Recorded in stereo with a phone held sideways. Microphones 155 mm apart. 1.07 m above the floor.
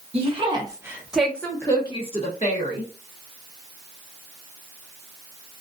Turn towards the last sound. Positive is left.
turn(degrees=55)  # may be behind; listen again after turning